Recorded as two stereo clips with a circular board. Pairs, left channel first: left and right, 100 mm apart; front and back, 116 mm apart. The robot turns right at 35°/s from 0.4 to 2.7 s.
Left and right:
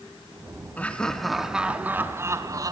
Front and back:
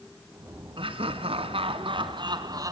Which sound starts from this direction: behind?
Laughter, at 0.8 s.